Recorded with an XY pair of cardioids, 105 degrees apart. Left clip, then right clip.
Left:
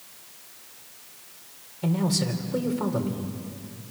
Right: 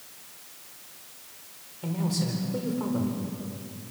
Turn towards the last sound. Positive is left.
turn(degrees=40)